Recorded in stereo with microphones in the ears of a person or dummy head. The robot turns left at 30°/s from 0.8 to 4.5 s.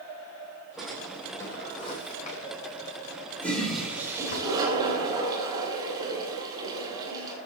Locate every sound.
0.8 s a drawer: centre (ahead or behind), 3 m; by 4.4 s 60° left (ahead or behind), 3 m
3.4 s a toilet flushing: 5° left, 5.5 m; by 7.4 s 25° right, 5.5 m